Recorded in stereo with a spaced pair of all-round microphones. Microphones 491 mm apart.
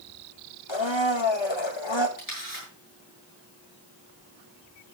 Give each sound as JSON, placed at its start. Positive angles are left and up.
{"t": 0.7, "sound": "a blender", "side_deg": 70, "distance_m": 1.5}
{"t": 2.2, "sound": "a camera shutter", "side_deg": 45, "distance_m": 8.0}